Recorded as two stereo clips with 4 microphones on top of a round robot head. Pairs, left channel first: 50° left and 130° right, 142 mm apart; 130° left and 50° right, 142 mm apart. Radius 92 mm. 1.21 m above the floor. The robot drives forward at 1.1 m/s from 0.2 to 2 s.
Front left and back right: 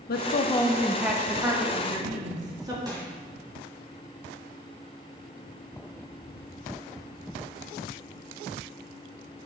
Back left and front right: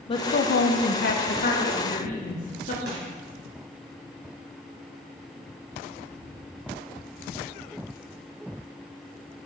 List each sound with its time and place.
0.1 s a woman speaking: 75° left, 0.5 m; by 2.8 s 165° left, 1.9 m
2.9 s crushing: 65° right, 3 m